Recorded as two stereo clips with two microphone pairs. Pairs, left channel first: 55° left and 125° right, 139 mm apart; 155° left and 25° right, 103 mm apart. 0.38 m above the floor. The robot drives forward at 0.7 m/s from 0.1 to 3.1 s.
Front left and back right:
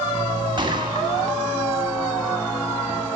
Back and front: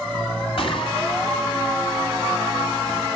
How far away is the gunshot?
About 1.8 m.